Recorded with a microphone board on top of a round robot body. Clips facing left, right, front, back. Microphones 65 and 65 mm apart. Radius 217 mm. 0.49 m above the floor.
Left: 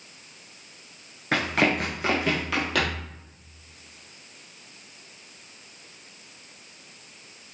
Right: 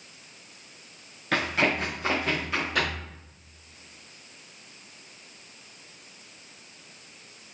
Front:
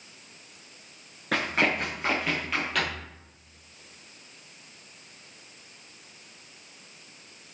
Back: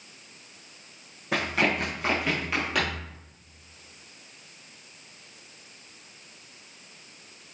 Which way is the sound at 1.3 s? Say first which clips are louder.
Left 2 dB, even; 25° left.